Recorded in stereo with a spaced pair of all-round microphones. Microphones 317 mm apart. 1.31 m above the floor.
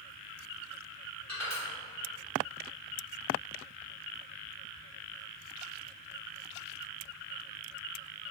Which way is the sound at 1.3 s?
55° left (ahead or behind).